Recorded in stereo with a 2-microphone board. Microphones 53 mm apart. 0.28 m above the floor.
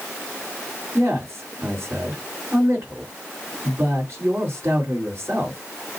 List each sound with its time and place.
0.9 s a man speaking: 50° right (ahead or behind), 3.5 m